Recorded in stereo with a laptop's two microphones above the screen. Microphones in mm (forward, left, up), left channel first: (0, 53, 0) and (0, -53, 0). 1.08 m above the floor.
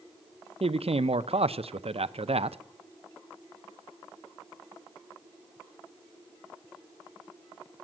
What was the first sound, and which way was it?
A man speaking, 70° right (ahead or behind).